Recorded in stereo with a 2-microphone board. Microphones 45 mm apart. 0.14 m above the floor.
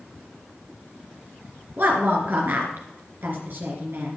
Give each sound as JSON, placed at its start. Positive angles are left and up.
{"t": 1.8, "sound": "a woman speaking", "side_deg": -50, "distance_m": 2.5}